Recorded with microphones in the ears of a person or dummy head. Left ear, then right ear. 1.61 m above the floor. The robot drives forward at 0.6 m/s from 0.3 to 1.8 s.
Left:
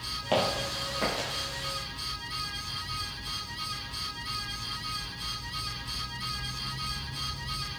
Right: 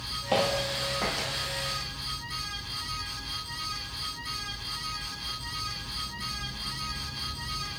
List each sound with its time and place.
0.3 s footsteps: 10° left (ahead or behind), 2 m; by 1.3 s 5° left (ahead or behind), 2.5 m